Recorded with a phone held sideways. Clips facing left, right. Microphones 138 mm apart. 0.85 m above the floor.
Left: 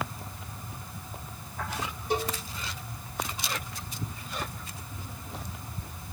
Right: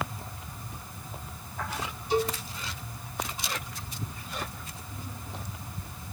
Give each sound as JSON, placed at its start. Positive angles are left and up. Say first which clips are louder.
{"t": 2.1, "sound": "a cowbell", "louder": "right 3 dB", "side_deg": 55, "distance_m": 1.7}